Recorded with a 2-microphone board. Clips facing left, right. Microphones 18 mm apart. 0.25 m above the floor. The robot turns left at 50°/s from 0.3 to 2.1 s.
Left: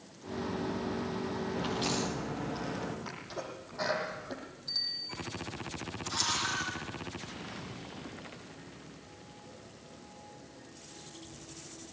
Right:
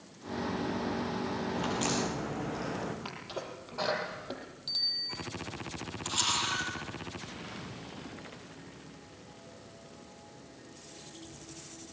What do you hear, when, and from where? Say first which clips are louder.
1.6 s a crack: right 1 dB; 75° right (ahead or behind), 6.5 m; by 3.0 s 80° right, 6.5 m
3.0 s a sneeze: right 1 dB; 75° right (ahead or behind), 8.5 m
4.7 s a bicycle bell: right 3 dB; 55° right (ahead or behind), 5 m
6.0 s a camera shutter: right 2 dB; 55° right (ahead or behind), 7 m